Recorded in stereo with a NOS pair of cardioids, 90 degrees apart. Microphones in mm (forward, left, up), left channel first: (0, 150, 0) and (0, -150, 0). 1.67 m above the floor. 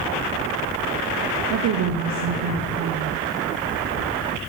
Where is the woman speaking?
65° right, 0.8 m.